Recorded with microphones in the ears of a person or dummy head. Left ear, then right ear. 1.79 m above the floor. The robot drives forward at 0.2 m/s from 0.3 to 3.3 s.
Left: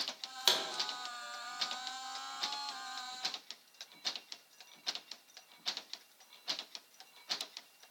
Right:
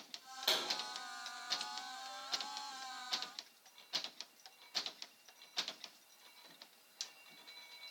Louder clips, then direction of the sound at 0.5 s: Left 5 dB; 70° left (ahead or behind).